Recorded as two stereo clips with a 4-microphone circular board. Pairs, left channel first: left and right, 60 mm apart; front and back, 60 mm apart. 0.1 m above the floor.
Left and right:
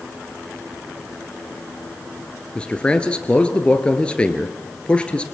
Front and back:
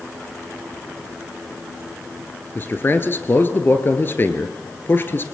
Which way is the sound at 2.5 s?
25° left.